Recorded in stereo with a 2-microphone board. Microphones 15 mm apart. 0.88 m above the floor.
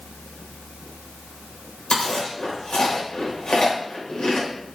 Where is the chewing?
75° left (ahead or behind), 4.5 m.